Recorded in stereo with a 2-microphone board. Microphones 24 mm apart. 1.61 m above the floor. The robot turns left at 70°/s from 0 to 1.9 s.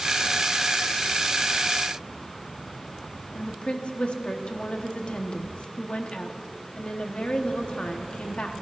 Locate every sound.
3.4 s a woman speaking: 55° left (ahead or behind), 1.2 m